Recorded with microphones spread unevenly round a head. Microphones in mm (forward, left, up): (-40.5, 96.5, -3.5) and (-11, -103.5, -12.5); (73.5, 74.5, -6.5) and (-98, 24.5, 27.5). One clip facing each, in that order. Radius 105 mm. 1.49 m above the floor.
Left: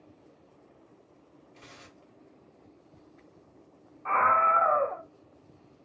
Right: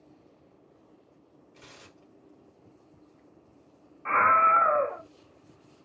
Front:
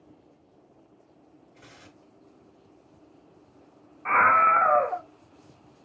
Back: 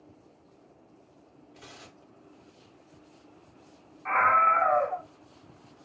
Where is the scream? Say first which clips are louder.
Even, front 2 dB; 20° right, 0.6 m.